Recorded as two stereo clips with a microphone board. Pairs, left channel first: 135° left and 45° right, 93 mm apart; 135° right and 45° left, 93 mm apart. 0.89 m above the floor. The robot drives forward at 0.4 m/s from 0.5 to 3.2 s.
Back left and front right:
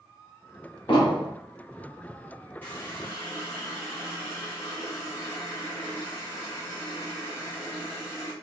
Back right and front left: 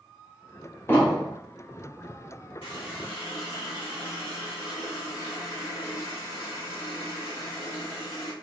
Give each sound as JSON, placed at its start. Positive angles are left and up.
{"t": 0.9, "sound": "an explosion", "azimuth_deg": 160, "distance_m": 1.4}
{"t": 2.6, "sound": "a running tap", "azimuth_deg": -155, "distance_m": 1.5}